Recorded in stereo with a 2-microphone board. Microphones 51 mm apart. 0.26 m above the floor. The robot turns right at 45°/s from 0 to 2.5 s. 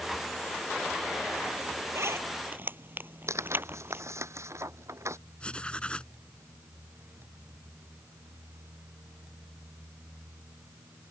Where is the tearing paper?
70° right (ahead or behind).